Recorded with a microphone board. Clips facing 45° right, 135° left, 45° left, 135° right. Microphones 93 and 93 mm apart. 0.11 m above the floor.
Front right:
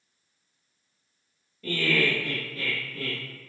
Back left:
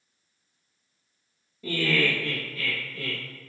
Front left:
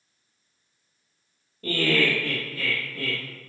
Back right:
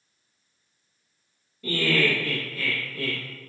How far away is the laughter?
About 1.7 m.